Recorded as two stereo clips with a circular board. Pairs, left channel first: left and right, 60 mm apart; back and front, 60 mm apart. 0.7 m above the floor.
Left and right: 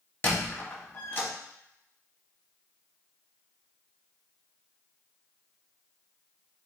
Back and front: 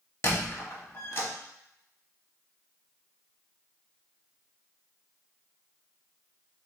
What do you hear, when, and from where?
0.2 s a squeak: 140° left, 0.9 m